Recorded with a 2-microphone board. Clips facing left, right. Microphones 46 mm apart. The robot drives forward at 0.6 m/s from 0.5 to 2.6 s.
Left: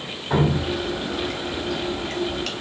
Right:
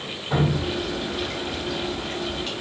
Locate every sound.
0.3 s dripping: 30° left (ahead or behind), 1.6 m; by 2.5 s 75° left (ahead or behind), 0.8 m